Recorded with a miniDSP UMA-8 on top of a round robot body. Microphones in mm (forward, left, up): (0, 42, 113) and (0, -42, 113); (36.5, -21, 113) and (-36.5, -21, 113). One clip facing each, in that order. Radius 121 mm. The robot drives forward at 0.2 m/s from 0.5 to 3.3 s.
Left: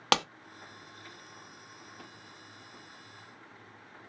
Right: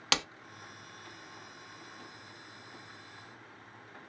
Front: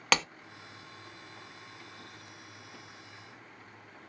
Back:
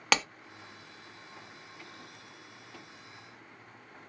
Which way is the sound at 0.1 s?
90° left.